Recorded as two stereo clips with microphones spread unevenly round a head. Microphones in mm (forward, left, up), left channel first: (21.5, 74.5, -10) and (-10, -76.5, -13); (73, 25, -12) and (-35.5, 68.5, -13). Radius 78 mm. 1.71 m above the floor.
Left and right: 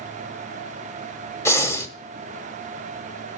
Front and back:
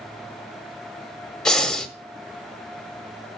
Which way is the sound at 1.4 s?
55° left.